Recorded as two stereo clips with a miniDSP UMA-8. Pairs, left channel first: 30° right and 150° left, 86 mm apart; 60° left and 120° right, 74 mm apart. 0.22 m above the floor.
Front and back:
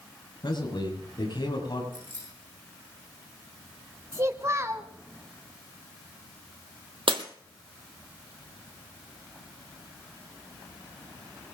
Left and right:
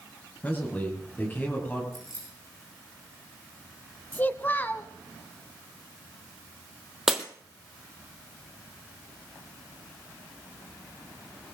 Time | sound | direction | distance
0.4 | a man speaking | 5° right | 6 m
1.9 | keys jangling | 30° left | 10 m
4.1 | a child speaking | 110° left | 0.7 m
7.1 | breaking glass | 155° left | 1.6 m